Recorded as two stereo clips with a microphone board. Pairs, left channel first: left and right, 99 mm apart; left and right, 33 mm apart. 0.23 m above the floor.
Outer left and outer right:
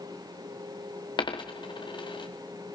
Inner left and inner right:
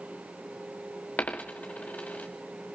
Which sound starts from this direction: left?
A dropped coin, at 1.2 s.